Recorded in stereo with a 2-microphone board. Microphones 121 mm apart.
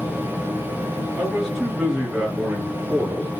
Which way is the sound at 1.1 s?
Centre (ahead or behind).